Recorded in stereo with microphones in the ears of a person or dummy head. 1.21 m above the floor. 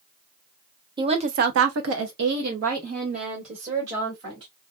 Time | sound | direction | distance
1.0 | a woman speaking | 20° right (ahead or behind) | 0.7 m